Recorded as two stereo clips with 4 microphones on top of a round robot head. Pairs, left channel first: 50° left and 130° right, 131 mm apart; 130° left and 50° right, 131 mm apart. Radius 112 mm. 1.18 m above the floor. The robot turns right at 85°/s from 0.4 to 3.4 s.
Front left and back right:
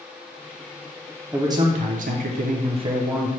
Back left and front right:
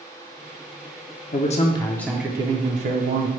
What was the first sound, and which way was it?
A man speaking, 150° left.